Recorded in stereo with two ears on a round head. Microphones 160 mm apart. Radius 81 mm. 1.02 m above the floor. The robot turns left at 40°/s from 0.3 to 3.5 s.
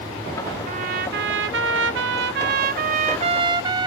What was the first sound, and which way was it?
A trumpet, 40° right.